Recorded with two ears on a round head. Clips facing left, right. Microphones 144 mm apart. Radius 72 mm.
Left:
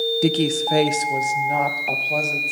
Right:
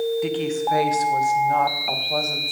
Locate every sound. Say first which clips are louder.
0.2 s a woman speaking: left 3 dB; 55° left (ahead or behind), 0.8 m; by 2.5 s 10° left (ahead or behind), 2.5 m